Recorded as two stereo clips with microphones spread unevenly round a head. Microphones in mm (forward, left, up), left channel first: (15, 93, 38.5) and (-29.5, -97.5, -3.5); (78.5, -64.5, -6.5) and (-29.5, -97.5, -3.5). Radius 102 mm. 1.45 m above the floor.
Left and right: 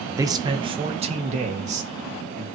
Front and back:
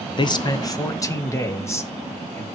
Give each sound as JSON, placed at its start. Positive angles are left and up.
{"t": 0.2, "sound": "a man speaking", "azimuth_deg": -30, "distance_m": 1.5}